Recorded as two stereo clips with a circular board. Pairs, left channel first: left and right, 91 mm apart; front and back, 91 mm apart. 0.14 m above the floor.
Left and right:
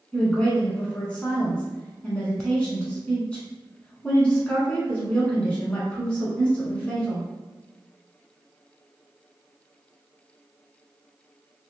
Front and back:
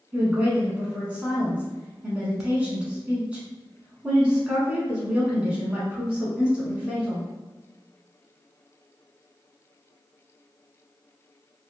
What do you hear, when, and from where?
0.1 s a woman speaking: 135° left, 1.0 m